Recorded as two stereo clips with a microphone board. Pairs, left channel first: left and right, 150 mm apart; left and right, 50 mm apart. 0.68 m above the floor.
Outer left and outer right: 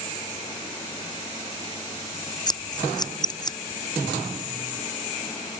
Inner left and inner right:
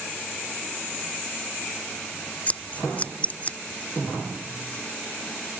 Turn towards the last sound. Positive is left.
turn(degrees=30)  # may be behind; listen again after turning